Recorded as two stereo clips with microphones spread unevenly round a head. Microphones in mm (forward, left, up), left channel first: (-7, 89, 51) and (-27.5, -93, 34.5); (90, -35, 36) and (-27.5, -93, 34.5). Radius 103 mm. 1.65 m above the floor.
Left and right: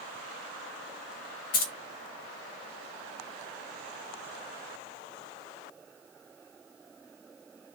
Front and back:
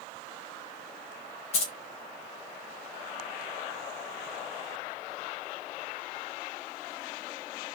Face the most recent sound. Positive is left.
turn(degrees=60)